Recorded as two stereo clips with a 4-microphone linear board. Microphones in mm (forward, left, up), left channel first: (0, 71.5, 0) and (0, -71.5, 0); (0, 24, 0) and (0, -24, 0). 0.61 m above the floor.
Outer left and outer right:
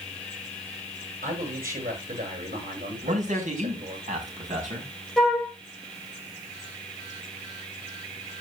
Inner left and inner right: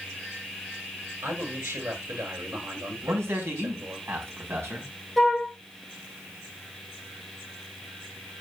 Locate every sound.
1.2 s a man speaking: 85° right, 8 m
3.0 s a man speaking: 65° right (ahead or behind), 4.5 m
5.2 s a flute: 5° left (ahead or behind), 2.5 m